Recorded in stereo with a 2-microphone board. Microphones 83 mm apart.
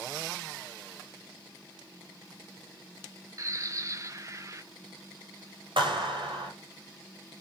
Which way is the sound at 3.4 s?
40° right (ahead or behind).